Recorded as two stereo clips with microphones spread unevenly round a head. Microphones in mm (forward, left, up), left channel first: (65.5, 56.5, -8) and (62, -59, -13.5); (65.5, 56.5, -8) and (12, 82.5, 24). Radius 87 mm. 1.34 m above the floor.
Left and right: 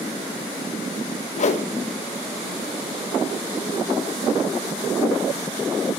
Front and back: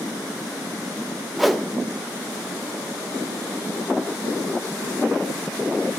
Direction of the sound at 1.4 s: 70° left.